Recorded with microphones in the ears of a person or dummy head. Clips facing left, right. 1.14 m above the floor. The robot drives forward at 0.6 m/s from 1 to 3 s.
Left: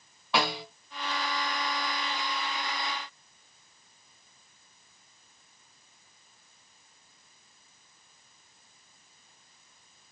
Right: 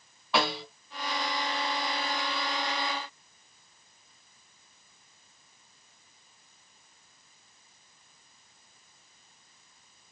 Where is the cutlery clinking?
No cutlery clinking in this recording.